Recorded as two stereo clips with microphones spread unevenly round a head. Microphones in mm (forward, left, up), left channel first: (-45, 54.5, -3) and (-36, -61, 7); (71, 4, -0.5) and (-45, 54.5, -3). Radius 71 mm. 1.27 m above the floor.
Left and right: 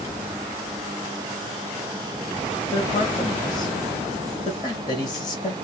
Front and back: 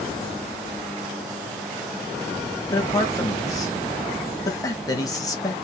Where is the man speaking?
40° left, 1.0 m.